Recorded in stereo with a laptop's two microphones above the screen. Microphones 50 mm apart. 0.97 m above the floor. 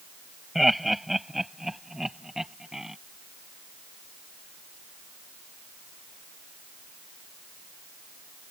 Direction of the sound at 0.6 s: Centre (ahead or behind).